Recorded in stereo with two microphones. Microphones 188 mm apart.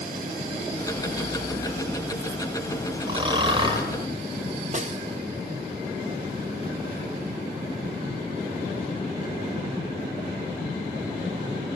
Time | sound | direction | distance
0.8 | ticking | 20° left (ahead or behind) | 2.5 m
3.1 | snoring | 25° right (ahead or behind) | 3.5 m
4.7 | a snare drum | 40° right (ahead or behind) | 1.6 m